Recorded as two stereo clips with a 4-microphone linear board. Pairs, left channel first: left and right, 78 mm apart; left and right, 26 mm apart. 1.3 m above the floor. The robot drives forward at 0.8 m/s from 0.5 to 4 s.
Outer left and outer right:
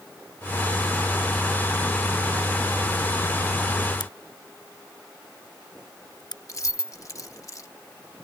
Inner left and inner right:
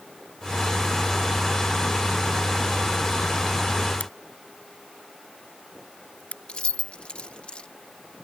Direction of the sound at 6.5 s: 45° left (ahead or behind).